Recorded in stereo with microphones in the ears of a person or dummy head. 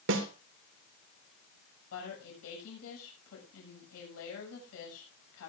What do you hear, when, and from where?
0.1 s a snare drum: 60° right (ahead or behind), 1.6 m
1.9 s a woman speaking: 85° left, 7 m